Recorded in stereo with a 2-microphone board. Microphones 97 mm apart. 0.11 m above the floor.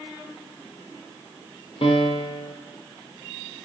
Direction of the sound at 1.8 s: 70° left (ahead or behind).